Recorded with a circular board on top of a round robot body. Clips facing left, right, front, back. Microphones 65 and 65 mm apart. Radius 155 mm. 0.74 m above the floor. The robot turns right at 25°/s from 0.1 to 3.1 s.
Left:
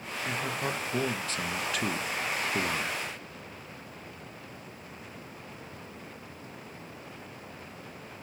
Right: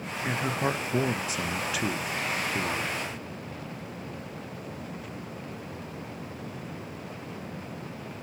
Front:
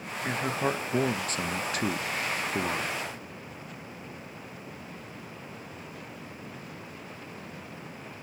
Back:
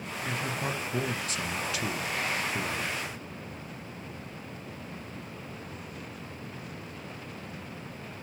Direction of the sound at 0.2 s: 45° right.